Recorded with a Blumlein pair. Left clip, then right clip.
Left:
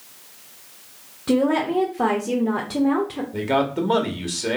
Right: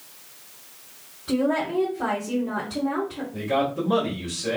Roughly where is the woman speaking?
Ahead left.